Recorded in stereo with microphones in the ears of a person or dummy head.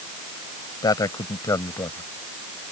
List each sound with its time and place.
0.8 s a man speaking: 20° left (ahead or behind); by 2.1 s 15° left (ahead or behind)